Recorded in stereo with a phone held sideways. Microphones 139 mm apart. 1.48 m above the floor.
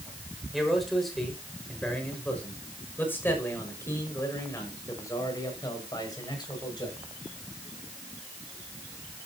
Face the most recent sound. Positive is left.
turn(degrees=30)  # may be behind; listen again after turning